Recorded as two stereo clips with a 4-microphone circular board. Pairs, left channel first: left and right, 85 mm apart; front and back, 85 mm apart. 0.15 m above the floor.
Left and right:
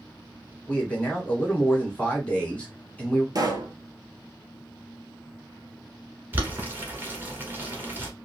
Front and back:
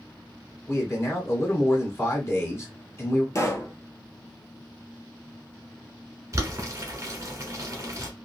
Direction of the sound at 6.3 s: 145° right.